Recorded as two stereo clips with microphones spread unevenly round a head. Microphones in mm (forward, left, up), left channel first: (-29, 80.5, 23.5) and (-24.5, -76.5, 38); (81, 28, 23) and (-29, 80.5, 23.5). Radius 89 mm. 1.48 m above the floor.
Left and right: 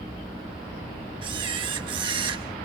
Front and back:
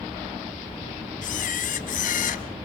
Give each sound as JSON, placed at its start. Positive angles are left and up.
{"t": 1.2, "sound": "a camera shutter", "azimuth_deg": -25, "distance_m": 1.1}